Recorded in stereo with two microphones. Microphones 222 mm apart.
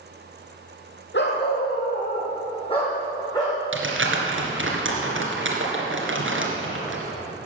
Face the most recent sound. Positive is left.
turn(degrees=-65)  # may be behind; listen again after turning